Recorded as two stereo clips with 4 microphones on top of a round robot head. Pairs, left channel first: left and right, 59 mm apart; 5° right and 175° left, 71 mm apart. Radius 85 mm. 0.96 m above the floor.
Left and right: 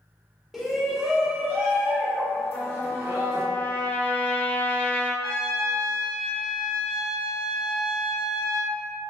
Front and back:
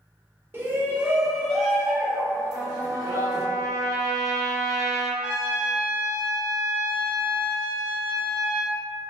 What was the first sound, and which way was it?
A shout, 175° right.